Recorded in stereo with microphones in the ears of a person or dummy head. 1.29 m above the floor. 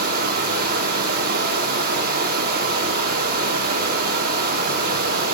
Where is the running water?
60° right (ahead or behind), 1.1 m.